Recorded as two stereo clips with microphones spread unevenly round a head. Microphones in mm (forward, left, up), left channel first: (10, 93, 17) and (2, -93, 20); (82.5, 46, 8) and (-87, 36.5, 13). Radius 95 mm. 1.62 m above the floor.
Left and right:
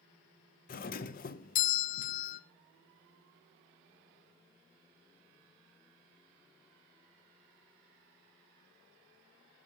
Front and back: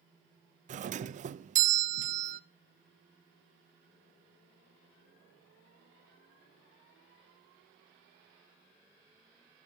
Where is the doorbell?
135° left, 0.7 m.